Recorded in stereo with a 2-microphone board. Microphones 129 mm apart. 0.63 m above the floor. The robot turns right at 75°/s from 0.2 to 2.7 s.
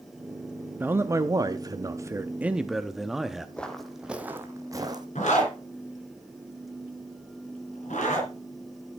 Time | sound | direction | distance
0.8 | a man speaking | 15° right (ahead or behind) | 0.5 m
3.6 | footsteps | 10° left (ahead or behind) | 1.1 m
5.2 | a zipper | 70° left (ahead or behind) | 4 m